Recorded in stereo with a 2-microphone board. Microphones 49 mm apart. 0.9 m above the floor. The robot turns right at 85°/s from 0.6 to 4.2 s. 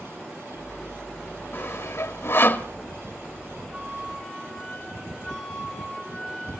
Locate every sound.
1.5 s sawing: 45° left (ahead or behind), 1.1 m; by 2.7 s 30° left (ahead or behind), 1.1 m
3.7 s a flute: 25° right, 6 m; by 6.6 s 15° left, 6 m